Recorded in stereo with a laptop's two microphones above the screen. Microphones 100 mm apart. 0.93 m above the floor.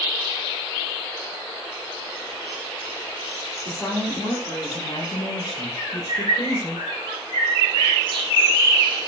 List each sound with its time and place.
3.6 s a woman speaking: 30° left (ahead or behind), 1.6 m; by 6.8 s 40° left (ahead or behind), 1.0 m
5.8 s a bird: 55° right (ahead or behind), 1.3 m